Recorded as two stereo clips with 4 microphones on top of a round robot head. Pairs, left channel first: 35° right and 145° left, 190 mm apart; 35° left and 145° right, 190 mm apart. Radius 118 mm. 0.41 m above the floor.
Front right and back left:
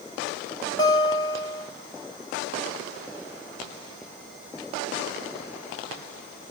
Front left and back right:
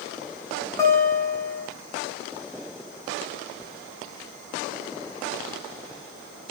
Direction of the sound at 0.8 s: 10° right.